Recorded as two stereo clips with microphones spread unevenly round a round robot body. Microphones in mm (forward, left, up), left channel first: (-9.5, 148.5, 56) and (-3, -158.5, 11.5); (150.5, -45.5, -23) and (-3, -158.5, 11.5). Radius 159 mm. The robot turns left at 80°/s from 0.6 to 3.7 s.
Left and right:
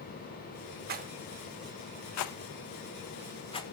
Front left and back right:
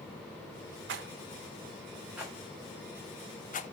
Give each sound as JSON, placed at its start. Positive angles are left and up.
{"t": 0.9, "sound": "a rattle", "azimuth_deg": -135, "distance_m": 0.5}